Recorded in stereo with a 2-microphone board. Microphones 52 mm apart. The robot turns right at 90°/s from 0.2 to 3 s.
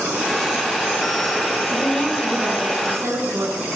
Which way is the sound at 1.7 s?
145° left.